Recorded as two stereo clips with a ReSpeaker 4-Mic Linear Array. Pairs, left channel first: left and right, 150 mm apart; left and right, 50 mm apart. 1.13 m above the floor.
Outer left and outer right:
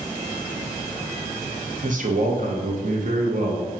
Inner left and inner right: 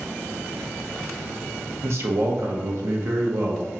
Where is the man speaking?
60° right (ahead or behind), 0.8 m.